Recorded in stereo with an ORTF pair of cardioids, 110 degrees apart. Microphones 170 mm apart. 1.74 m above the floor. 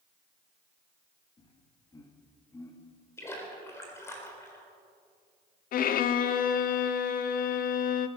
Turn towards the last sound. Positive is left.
turn(degrees=60)